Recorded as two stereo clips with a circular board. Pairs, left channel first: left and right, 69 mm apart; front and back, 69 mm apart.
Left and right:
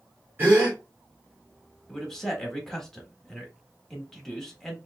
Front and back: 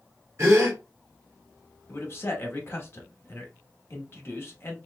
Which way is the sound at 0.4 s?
145° right.